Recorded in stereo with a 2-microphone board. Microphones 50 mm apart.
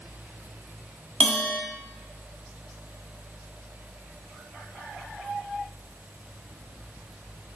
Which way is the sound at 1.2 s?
15° left (ahead or behind).